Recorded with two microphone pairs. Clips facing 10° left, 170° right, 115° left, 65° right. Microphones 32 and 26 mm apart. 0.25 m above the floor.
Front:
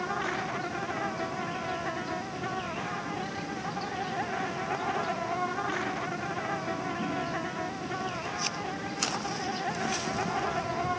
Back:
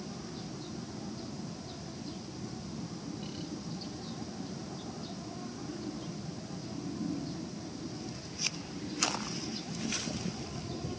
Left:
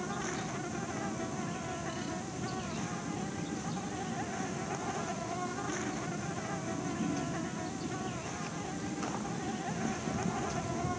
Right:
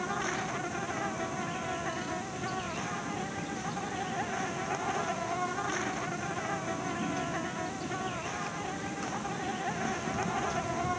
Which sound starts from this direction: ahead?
An insect, at 0.0 s.